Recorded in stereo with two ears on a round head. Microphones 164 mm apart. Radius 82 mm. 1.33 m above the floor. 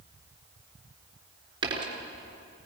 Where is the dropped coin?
30° right (ahead or behind), 3.5 m.